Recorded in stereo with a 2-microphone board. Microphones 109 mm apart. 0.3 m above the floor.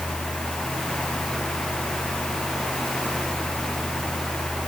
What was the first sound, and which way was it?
Only background noise.